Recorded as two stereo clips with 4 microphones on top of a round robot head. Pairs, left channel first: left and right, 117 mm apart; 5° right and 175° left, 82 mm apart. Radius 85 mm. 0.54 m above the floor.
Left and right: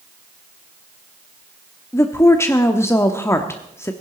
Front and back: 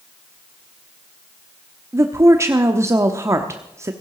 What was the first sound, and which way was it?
A woman speaking, 145° left.